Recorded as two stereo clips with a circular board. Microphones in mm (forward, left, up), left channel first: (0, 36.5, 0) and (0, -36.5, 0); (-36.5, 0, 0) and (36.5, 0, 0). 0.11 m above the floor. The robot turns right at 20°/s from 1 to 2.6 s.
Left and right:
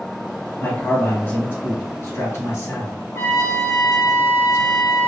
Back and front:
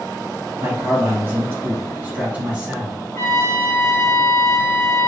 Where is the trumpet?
135° left, 1.6 m.